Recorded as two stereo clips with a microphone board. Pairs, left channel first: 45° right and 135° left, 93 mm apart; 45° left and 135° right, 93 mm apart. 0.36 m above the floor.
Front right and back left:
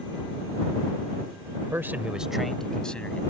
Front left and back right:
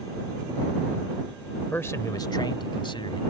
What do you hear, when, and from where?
1.6 s a man speaking: 115° left; by 3.2 s 30° left